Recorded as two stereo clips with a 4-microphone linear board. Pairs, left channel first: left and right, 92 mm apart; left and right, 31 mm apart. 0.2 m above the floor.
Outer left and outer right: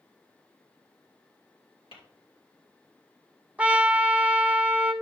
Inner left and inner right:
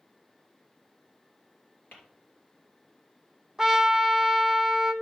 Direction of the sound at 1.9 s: 70° left (ahead or behind).